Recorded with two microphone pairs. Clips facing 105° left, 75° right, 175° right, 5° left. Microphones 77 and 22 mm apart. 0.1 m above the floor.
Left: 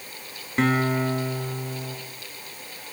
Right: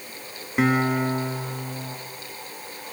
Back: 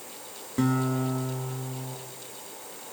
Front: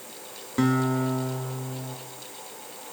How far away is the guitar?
About 1.7 m.